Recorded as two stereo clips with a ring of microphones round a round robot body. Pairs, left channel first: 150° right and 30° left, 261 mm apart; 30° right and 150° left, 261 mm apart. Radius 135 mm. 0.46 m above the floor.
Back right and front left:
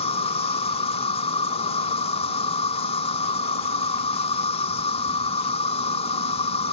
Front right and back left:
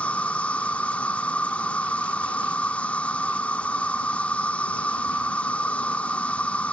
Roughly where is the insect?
Right.